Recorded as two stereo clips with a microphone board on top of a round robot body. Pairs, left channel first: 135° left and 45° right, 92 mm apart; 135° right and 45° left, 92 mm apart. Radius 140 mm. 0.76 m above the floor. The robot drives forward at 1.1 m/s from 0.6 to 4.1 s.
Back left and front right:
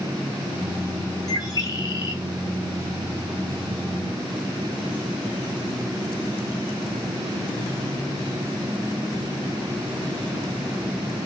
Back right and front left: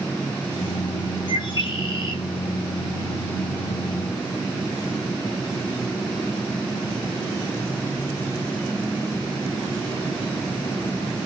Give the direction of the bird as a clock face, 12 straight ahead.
6 o'clock.